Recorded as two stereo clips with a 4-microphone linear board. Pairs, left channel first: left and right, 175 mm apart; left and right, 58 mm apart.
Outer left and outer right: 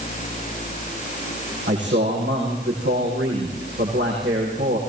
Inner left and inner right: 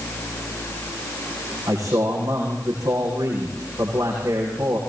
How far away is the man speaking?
About 9 m.